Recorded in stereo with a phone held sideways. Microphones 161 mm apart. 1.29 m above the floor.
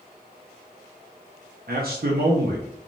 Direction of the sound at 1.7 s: 70° right (ahead or behind).